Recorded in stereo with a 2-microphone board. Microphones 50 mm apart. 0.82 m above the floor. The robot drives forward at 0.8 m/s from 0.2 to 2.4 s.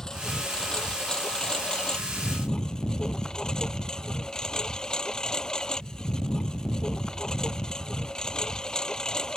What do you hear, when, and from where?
0.0 s a lawn mower: 10° left (ahead or behind); by 9.4 s 15° left (ahead or behind)